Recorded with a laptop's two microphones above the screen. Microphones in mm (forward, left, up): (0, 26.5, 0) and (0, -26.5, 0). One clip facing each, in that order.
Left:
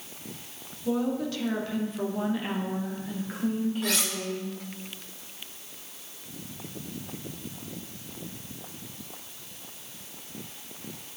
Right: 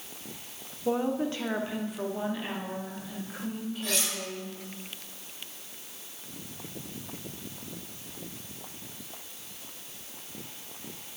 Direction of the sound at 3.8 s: 85° left.